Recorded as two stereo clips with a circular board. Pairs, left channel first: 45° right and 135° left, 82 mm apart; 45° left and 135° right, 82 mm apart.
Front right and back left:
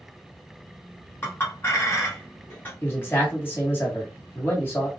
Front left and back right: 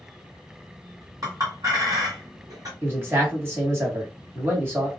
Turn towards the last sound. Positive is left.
turn(degrees=-95)